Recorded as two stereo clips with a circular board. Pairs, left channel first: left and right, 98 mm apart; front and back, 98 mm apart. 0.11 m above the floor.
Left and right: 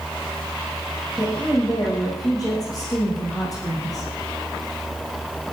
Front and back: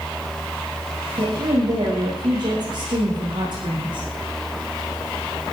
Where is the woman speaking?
140° left, 8.5 m.